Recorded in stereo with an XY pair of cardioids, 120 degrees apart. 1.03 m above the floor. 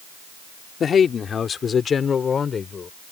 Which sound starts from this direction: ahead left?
A man speaking, at 0.8 s.